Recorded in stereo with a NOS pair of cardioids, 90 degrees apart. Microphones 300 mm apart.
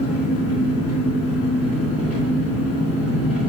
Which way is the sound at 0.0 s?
55° left.